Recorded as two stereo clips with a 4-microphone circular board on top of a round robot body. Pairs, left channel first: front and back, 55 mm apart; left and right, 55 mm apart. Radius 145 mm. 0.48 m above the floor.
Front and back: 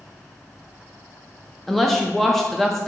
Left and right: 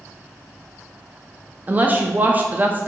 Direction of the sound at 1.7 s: 85° right.